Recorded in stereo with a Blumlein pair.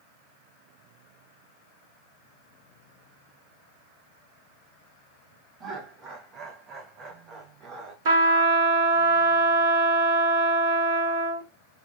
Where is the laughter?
25° right, 1.3 m.